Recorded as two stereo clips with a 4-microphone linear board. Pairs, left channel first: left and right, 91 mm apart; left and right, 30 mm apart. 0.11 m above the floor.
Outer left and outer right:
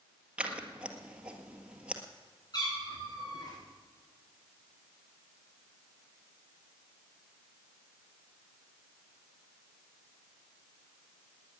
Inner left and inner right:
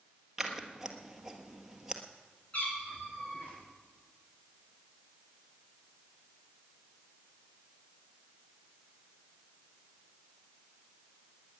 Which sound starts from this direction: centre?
Scissors, at 0.4 s.